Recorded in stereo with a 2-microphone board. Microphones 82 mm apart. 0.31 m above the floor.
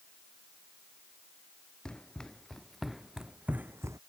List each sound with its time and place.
1.9 s running footsteps: 10° left (ahead or behind); by 4.0 s 40° right (ahead or behind)